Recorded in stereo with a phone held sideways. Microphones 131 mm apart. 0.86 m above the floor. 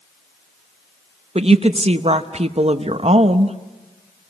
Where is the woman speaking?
55° right (ahead or behind), 0.7 m.